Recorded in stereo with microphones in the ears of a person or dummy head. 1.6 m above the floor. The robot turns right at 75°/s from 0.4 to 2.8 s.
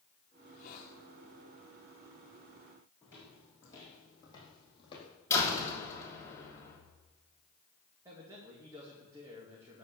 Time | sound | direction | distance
0.4 | a hiss | 30° left | 4 m
3.0 | footsteps | 15° left (ahead or behind) | 5 m
5.3 | a door slam | 15° left (ahead or behind) | 3 m
8.1 | a man speaking | 20° right (ahead or behind) | 2.5 m